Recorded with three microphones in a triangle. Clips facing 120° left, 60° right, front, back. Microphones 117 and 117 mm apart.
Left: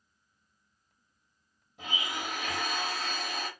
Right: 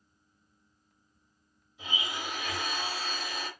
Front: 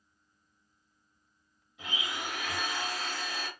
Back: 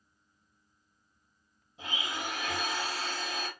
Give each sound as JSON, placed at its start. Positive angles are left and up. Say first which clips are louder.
{"t": 1.8, "sound": "a blender", "louder": "left 1 dB, back 1 dB", "azimuth_deg": 130, "distance_m": 1.3}